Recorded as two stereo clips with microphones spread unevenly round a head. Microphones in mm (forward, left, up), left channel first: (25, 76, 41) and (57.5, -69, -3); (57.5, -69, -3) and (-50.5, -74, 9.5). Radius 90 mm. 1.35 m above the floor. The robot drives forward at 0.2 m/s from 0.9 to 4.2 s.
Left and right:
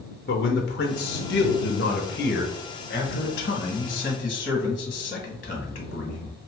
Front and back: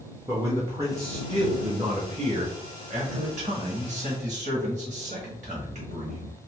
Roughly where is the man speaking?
Left.